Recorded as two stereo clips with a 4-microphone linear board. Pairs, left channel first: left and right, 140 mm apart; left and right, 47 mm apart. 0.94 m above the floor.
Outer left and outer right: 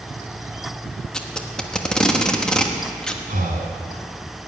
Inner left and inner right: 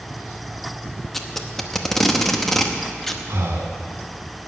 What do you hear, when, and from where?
1.1 s tape being pulled: 5° left (ahead or behind), 1.0 m
3.3 s breathing: 70° right (ahead or behind), 1.9 m